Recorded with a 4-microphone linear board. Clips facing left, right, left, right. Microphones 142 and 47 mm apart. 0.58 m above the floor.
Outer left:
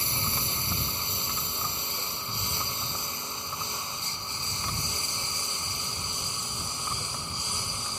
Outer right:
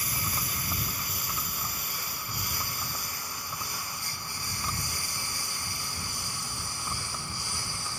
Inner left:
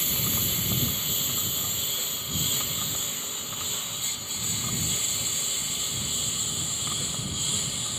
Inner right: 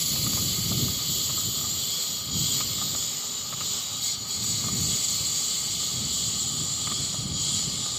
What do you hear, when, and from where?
0.0 s a lawn mower: 25° left (ahead or behind); by 8.0 s 20° left (ahead or behind)